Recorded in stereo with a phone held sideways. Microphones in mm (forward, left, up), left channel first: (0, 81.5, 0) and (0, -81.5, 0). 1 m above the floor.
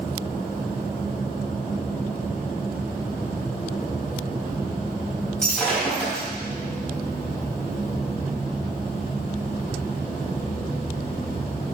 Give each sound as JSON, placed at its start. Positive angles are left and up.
{"t": 5.4, "sound": "breaking glass", "side_deg": 5, "distance_m": 4.0}